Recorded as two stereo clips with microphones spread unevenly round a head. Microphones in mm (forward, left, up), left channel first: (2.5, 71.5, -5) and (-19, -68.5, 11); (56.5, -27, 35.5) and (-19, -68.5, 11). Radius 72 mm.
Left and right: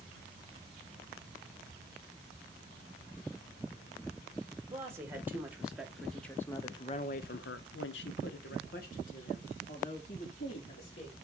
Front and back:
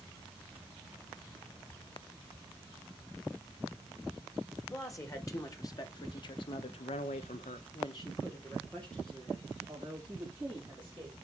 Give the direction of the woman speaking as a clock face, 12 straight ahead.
1 o'clock.